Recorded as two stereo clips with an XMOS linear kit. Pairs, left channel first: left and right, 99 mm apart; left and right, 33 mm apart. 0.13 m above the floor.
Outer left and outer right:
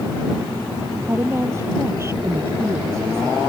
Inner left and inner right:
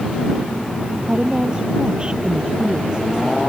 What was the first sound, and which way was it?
A woman speaking, 30° right (ahead or behind).